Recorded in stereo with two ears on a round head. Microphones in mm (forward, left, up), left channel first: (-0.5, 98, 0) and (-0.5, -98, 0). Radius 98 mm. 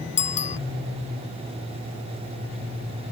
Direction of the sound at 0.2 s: 35° left (ahead or behind).